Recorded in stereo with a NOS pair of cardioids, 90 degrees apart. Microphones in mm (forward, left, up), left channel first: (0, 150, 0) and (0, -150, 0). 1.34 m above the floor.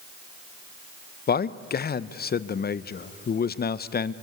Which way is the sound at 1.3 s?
35° left.